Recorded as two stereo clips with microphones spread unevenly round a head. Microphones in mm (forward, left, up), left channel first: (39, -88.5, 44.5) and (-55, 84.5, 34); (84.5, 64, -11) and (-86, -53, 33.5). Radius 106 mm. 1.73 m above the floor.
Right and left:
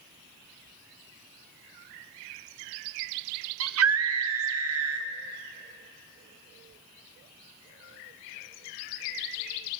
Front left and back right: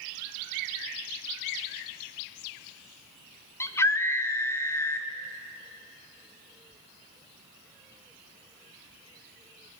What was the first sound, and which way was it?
A scream, 120° left.